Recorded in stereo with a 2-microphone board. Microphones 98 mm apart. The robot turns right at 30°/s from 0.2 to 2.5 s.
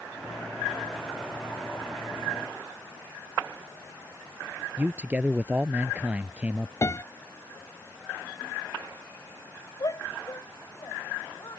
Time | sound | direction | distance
4.8 | a man speaking | 15° right (ahead or behind) | ?
6.8 | a piano | 35° left (ahead or behind) | ?
9.8 | a shout | 40° left (ahead or behind) | ?